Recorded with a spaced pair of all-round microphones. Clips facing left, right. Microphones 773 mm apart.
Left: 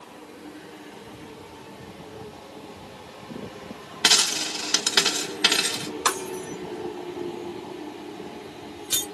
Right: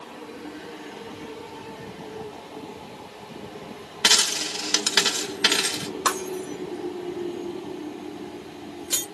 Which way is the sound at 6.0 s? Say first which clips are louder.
Right 2 dB; 30° left (ahead or behind).